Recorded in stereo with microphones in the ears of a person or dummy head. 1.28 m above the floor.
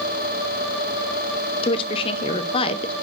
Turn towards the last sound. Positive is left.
turn(degrees=30)  # may be behind; listen again after turning